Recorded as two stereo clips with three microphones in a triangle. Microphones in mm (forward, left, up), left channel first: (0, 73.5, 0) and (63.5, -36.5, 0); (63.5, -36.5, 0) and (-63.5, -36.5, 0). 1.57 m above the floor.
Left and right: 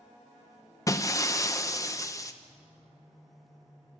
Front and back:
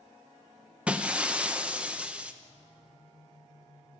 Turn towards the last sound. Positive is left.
turn(degrees=110)